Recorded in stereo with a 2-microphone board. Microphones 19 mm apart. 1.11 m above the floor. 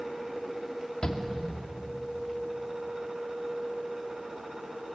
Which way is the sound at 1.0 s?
50° left (ahead or behind).